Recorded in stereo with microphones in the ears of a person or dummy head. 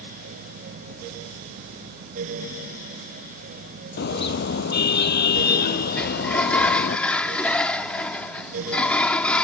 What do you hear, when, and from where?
4.0 s a car horn: 55° left (ahead or behind); by 7.0 s 45° left (ahead or behind)
6.0 s a sliding door: 5° left (ahead or behind)